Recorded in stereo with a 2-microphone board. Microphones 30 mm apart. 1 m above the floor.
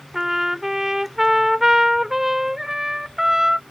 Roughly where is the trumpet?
Centre.